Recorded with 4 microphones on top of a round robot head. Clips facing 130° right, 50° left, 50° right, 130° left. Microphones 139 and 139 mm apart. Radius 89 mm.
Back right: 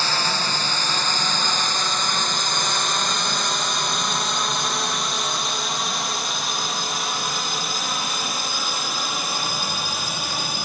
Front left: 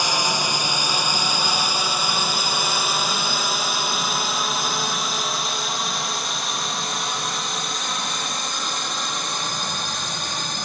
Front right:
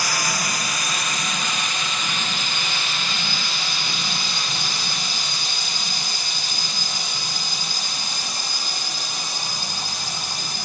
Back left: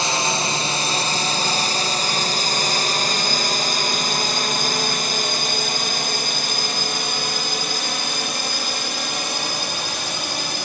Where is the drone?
110° left; by 10.7 s 145° left.